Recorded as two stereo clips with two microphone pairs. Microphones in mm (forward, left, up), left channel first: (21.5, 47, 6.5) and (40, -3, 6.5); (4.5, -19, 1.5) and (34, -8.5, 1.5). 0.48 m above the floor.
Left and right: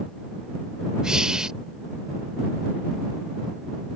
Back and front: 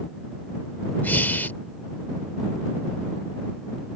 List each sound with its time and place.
1.0 s breathing: 145° right